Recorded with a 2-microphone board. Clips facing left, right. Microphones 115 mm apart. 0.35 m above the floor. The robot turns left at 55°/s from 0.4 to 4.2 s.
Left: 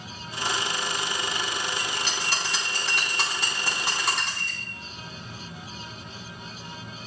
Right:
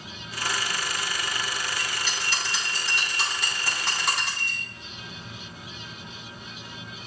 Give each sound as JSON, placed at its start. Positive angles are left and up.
{"t": 1.8, "sound": "a bell", "azimuth_deg": 130, "distance_m": 3.0}